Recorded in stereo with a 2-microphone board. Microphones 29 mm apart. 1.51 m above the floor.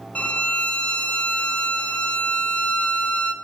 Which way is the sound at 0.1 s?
45° left (ahead or behind).